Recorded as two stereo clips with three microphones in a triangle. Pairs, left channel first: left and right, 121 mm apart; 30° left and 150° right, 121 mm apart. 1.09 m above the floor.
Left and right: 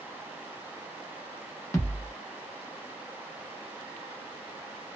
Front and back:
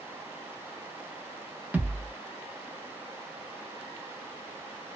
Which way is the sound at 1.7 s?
140° left.